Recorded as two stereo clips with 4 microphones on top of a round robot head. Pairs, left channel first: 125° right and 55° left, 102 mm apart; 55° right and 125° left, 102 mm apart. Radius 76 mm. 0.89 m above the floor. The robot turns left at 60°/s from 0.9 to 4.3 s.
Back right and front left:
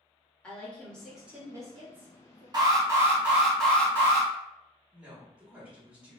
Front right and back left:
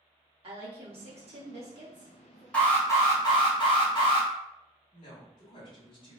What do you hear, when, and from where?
0.4 s a woman speaking: 155° left, 1.8 m; by 2.4 s 60° left, 1.8 m
2.5 s an alarm: 20° left, 1.9 m; by 4.3 s 85° right, 1.9 m
4.9 s a woman speaking: 25° right, 1.9 m